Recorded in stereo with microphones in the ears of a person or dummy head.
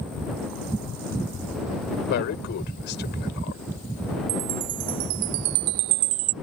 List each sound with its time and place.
2.1 s a man speaking: 55° left (ahead or behind)
4.3 s a chime: 55° right (ahead or behind)